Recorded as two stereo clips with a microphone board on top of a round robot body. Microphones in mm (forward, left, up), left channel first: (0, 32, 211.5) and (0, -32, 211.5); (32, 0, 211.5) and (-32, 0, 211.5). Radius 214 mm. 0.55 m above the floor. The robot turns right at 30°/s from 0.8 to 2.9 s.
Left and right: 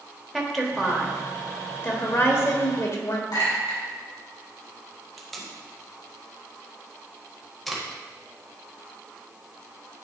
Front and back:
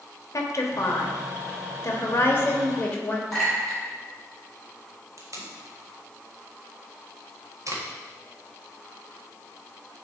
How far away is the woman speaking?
About 1.6 m.